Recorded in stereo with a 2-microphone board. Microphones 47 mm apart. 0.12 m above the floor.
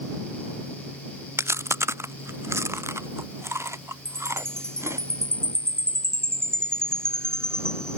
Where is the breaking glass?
I don't hear breaking glass.